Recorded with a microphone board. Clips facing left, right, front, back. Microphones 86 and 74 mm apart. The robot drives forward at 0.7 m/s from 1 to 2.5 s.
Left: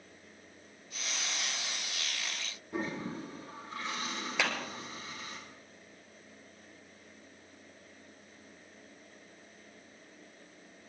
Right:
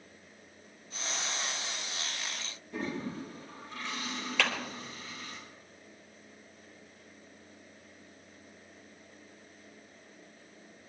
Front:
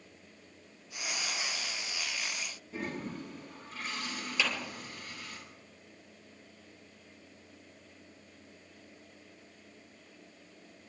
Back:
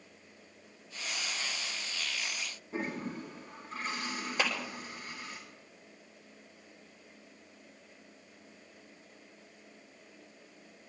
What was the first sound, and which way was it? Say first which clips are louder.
A toilet flushing: even, back 2 dB; 135° left.